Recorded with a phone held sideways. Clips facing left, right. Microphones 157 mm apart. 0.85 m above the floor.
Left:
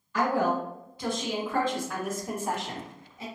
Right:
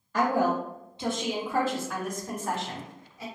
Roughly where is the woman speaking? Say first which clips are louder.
Right 1 dB; right.